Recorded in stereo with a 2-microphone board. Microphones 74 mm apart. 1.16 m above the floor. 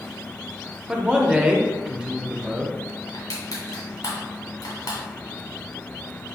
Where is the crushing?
55° left (ahead or behind), 1.6 m.